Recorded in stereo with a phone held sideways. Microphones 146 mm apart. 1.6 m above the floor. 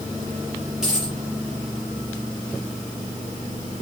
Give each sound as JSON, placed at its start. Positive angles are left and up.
{"t": 0.8, "sound": "a dropped coin", "side_deg": -5, "distance_m": 5.5}